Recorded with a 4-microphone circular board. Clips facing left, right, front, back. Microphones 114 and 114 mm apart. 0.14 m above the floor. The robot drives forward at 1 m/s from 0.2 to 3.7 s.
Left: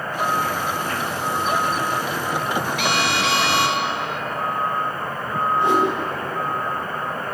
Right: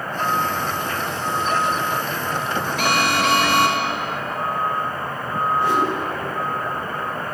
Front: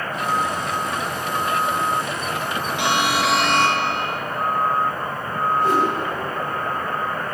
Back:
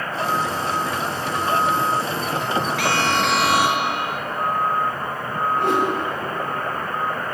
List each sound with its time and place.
2.8 s an alarm: 60° right, 1.5 m; by 4.2 s 105° right, 1.4 m
5.6 s a whoosh: 160° left, 10 m